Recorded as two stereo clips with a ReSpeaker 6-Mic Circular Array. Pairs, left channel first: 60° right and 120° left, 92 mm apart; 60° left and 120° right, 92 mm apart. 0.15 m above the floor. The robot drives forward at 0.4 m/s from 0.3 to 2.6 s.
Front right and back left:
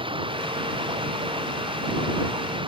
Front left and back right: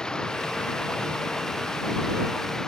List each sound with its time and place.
0.0 s running water: 140° left; by 2.7 s 145° left